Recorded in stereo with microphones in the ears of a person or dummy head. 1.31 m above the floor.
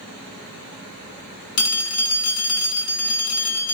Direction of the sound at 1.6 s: 70° left (ahead or behind).